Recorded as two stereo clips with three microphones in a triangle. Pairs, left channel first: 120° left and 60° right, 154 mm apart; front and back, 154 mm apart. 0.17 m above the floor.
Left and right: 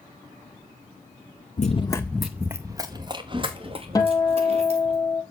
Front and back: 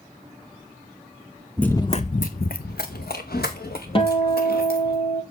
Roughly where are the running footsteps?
Left.